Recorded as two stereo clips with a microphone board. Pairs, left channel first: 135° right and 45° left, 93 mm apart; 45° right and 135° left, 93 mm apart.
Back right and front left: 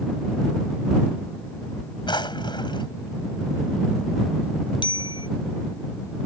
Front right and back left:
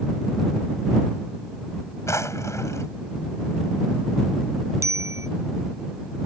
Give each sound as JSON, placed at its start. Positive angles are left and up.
{"t": 2.1, "sound": "a drawer", "azimuth_deg": -105}
{"t": 4.8, "sound": "a bicycle bell", "azimuth_deg": -165}